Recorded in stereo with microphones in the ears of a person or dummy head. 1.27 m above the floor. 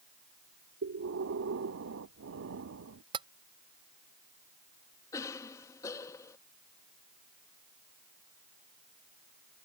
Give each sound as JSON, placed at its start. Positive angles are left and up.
{"t": 0.8, "sound": "breathing", "side_deg": -60}
{"t": 3.1, "sound": "tapping", "side_deg": -25}
{"t": 5.1, "sound": "a cough", "side_deg": 20}